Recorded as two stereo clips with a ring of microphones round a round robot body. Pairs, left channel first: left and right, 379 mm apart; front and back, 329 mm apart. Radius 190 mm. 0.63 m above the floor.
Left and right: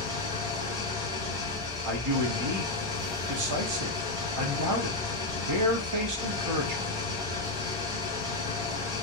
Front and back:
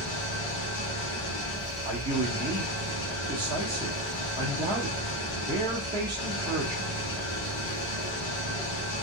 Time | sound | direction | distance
0.0 | an engine running | 10° right | 1.3 m
1.8 | a man speaking | 105° right | 1.1 m